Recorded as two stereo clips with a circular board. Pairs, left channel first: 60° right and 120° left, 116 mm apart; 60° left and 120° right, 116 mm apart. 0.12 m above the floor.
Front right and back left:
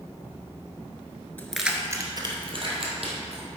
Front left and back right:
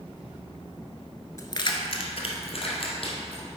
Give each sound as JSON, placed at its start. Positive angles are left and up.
{"t": 1.4, "sound": "keys jangling", "azimuth_deg": 10, "distance_m": 1.0}